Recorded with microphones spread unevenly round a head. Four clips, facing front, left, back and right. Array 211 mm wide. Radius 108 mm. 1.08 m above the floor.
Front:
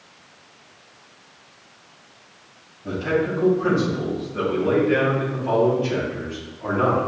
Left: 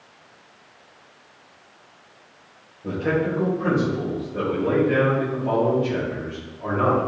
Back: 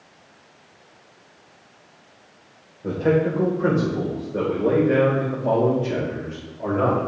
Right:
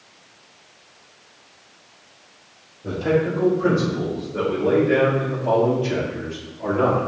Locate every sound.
2.8 s a man speaking: straight behind, 3.5 m; by 7.1 s 160° right, 5.5 m